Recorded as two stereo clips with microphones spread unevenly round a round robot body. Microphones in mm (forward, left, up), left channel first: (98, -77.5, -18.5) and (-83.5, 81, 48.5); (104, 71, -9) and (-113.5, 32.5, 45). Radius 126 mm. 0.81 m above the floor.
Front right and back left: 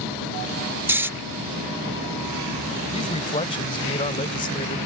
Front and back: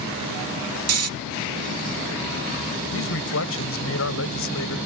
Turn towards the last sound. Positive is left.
turn(degrees=25)